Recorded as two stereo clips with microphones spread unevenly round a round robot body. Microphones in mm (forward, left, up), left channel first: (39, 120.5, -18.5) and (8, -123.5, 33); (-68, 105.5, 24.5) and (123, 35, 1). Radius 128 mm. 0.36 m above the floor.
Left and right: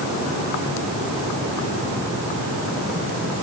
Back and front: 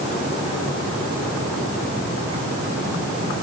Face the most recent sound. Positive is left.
No sound to turn to.